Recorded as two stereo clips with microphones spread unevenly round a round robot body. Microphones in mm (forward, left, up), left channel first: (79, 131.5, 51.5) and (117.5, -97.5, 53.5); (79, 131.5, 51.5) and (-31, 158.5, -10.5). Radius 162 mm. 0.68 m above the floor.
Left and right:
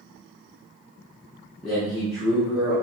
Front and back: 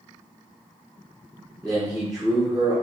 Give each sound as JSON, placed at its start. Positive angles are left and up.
{"t": 1.6, "sound": "a man speaking", "azimuth_deg": -175, "distance_m": 0.8}